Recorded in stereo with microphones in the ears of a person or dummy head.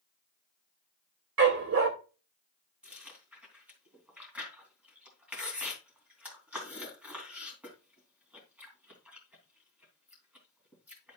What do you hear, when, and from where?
1.4 s a dog barking: 70° right (ahead or behind), 1.7 m
2.8 s chewing: 10° right (ahead or behind), 3 m